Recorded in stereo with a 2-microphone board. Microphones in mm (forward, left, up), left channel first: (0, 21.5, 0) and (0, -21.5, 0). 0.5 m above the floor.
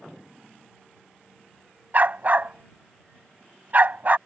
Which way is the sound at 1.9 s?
45° right (ahead or behind).